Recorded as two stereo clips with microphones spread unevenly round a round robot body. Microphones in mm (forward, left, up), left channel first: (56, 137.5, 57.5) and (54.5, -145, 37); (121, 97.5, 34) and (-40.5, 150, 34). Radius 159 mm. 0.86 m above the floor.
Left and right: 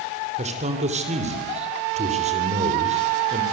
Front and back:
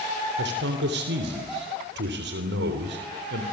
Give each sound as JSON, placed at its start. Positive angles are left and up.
{"t": 0.4, "sound": "a man speaking", "azimuth_deg": -160, "distance_m": 3.0}